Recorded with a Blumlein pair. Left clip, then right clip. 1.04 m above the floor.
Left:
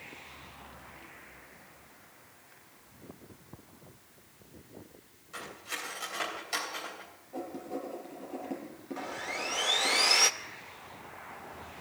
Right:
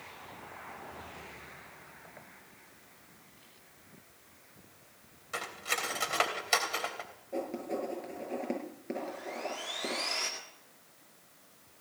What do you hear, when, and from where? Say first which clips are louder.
5.3 s cutlery clinking: right 5 dB; 60° right, 3.5 m
7.3 s writing: right 3 dB; 45° right, 7.5 m
9.0 s sawing: left 4 dB; 50° left, 1.3 m